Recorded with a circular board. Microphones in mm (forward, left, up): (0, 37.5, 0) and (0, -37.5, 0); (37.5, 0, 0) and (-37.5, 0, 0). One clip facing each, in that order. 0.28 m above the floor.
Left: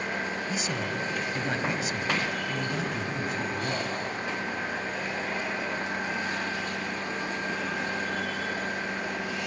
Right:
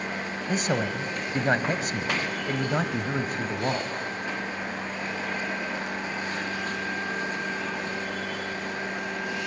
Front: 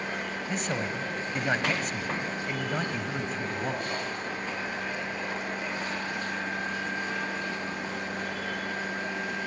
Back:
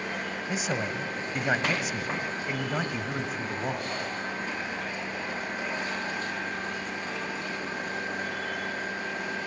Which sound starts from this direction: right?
A man speaking, at 0.5 s.